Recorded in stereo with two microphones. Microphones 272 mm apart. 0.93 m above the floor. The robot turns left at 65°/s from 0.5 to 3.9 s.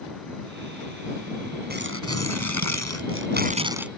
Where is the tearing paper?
35° right; by 3.9 s 175° right.